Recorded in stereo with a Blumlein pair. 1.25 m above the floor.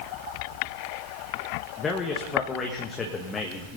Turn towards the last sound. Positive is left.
turn(degrees=20)